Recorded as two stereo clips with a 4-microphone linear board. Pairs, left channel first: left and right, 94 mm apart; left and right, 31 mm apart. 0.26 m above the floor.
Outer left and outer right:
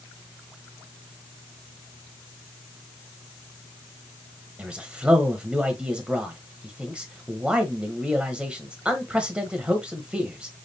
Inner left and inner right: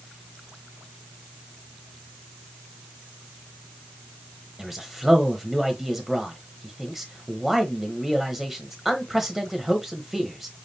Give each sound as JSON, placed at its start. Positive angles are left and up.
{"t": 4.6, "sound": "a man speaking", "side_deg": -10, "distance_m": 1.0}